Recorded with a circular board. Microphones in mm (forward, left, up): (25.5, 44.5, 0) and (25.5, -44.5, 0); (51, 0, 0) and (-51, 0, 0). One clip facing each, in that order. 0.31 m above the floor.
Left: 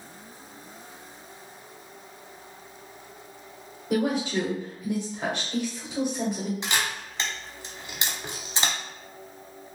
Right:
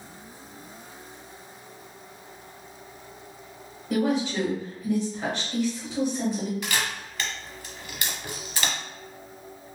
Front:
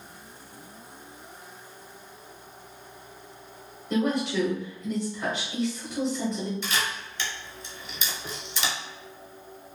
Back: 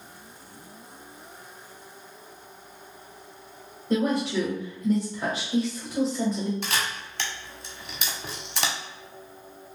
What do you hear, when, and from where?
3.9 s a woman speaking: 150° left, 1.0 m
6.6 s a camera shutter: 155° left, 0.7 m